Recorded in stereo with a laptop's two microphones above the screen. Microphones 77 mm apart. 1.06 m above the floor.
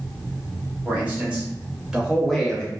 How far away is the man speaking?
About 1.4 m.